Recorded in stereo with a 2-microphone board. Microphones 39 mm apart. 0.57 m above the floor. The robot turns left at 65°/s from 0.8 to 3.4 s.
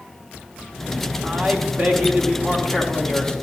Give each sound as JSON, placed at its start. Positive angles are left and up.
{"t": 1.2, "sound": "a man speaking", "azimuth_deg": -70, "distance_m": 1.0}